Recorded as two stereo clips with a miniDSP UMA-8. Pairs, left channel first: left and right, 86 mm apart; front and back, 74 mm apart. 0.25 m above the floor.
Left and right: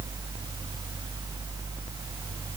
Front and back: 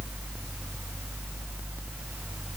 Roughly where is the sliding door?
I don't hear a sliding door.